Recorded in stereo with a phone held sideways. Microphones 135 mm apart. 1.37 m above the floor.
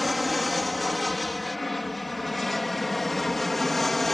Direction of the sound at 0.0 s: Centre (ahead or behind).